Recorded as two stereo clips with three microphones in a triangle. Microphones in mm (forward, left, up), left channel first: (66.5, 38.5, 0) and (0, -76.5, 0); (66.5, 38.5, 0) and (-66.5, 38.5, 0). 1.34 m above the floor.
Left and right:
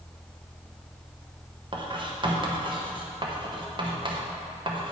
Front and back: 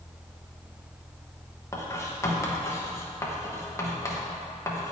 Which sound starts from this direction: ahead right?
Writing, at 1.7 s.